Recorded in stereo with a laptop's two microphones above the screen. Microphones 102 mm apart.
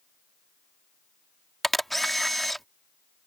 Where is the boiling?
No boiling in this recording.